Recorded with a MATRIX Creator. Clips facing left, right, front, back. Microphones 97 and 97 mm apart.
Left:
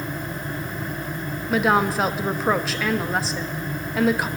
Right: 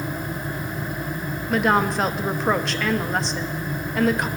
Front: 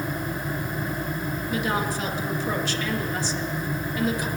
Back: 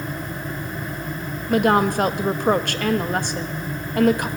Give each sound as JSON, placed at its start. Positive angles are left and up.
{"t": 1.5, "sound": "a woman speaking", "azimuth_deg": 175, "distance_m": 0.7}